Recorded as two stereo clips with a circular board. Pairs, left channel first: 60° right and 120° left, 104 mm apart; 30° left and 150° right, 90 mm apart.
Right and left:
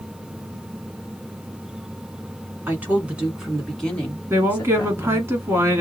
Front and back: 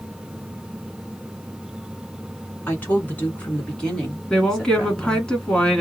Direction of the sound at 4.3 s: 100° left.